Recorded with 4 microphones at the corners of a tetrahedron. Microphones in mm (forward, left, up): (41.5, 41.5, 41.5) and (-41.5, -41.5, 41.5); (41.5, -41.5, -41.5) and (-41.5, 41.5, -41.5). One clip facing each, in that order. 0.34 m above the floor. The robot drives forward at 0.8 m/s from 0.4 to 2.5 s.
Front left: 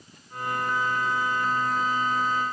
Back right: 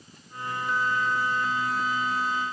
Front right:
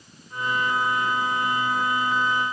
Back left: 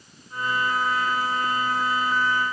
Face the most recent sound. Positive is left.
No sound to turn to.